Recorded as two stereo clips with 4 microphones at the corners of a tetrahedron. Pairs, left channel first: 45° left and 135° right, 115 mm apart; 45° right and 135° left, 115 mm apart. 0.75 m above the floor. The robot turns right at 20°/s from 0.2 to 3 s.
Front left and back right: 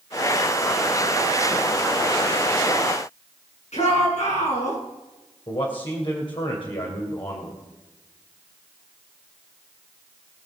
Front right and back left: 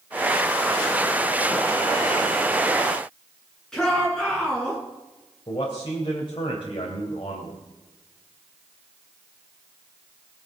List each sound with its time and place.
3.7 s a shout: 40° left, 8 m
5.5 s a man speaking: straight ahead, 3 m